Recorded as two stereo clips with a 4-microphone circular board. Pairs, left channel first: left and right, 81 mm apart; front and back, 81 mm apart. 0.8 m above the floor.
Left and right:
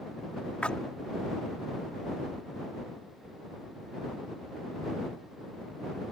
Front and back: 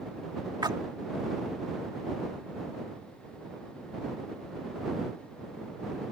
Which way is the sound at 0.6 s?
165° left.